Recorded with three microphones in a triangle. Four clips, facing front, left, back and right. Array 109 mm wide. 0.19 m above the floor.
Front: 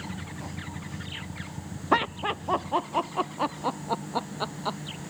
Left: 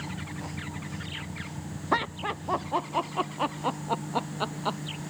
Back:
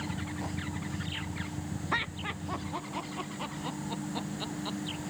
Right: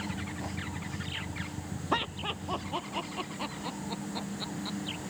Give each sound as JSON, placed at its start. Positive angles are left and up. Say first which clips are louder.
{"t": 1.9, "sound": "laughter", "louder": "left 4 dB, front 12 dB", "azimuth_deg": 10}